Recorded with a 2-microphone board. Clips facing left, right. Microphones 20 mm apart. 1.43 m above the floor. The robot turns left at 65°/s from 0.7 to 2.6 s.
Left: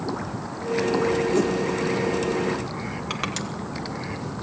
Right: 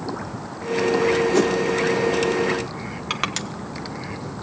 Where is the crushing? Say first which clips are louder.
Right 5 dB; 25° right (ahead or behind), 1.4 m.